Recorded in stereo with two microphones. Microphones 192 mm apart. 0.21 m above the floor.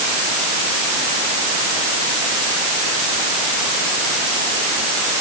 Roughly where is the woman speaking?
No woman speaking in this recording.